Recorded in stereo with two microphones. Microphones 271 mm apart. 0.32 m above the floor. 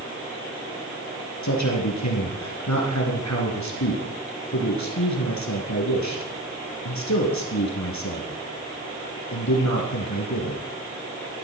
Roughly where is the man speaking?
Left.